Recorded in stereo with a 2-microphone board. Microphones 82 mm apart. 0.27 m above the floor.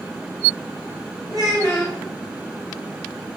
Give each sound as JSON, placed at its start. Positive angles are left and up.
{"t": 1.3, "sound": "a child speaking", "side_deg": -50, "distance_m": 1.5}